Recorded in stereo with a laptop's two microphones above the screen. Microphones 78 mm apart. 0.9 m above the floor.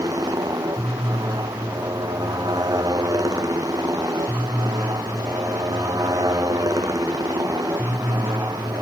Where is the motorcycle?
50° right (ahead or behind).